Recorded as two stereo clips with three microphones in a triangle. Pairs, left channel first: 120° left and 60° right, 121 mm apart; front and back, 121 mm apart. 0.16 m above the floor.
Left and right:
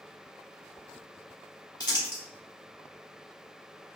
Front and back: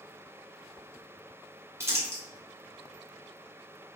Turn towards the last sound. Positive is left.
turn(degrees=130)